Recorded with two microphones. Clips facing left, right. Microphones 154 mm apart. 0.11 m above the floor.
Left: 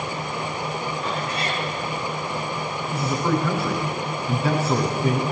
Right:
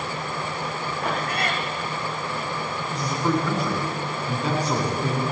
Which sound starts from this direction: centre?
A man speaking, at 2.9 s.